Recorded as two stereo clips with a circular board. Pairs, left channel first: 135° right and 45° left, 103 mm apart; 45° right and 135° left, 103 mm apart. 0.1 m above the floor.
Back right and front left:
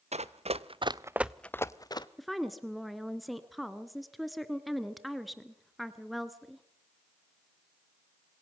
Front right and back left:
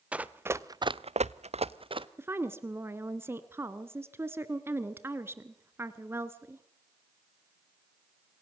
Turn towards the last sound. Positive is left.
turn(degrees=135)